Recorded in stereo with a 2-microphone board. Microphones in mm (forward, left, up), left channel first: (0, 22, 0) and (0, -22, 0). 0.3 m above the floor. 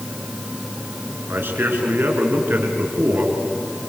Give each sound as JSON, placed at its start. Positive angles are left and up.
{"t": 1.3, "sound": "a man speaking", "side_deg": -60, "distance_m": 4.5}